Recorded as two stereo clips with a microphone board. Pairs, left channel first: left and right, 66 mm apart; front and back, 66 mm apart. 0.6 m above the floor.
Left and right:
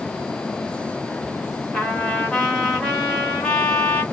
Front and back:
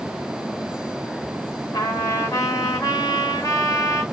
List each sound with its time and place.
1.7 s a trumpet: 10° left, 1.2 m